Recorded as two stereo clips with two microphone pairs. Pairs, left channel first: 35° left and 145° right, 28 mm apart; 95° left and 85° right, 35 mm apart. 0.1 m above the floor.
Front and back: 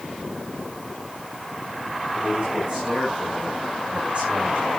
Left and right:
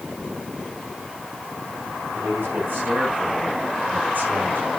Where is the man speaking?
90° right, 10 m; by 4.7 s 105° right, 8.5 m.